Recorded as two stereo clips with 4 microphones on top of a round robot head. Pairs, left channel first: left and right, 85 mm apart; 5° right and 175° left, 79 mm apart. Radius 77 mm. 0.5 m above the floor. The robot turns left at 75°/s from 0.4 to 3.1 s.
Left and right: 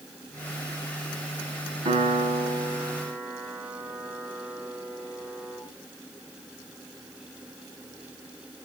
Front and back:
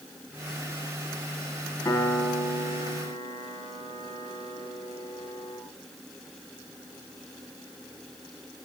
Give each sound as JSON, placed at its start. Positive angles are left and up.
{"t": 1.9, "sound": "a piano", "azimuth_deg": -70, "distance_m": 5.0}